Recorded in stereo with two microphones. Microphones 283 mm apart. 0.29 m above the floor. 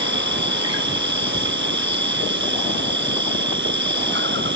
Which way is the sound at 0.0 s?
40° right (ahead or behind).